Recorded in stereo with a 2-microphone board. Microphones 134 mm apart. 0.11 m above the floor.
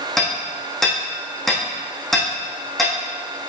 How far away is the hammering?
About 3 m.